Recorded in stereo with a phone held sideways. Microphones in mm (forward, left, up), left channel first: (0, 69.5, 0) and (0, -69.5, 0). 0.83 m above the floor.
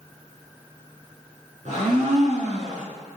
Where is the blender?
60° right (ahead or behind), 6 m.